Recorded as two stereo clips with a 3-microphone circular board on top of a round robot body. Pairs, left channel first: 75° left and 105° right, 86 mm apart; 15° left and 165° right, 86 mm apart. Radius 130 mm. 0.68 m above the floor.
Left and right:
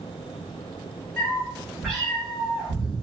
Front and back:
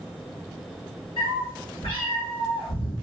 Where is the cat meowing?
15° right, 1.3 m.